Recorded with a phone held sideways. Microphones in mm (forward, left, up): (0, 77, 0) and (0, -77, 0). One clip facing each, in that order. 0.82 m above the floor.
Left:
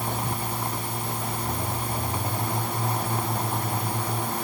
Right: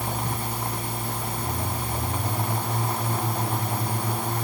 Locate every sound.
Only background noise.